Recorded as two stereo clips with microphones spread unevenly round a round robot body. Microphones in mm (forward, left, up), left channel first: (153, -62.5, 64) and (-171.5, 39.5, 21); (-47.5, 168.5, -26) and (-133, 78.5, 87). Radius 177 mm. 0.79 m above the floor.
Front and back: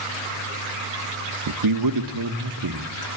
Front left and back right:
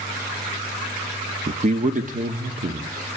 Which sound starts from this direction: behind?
A man speaking, at 1.5 s.